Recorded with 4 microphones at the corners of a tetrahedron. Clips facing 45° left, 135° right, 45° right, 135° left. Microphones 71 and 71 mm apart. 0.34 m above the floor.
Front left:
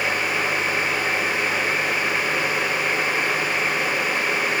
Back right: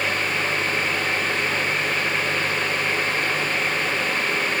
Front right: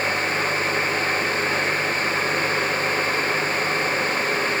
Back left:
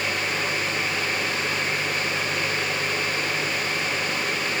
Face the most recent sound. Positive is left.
No sound to turn to.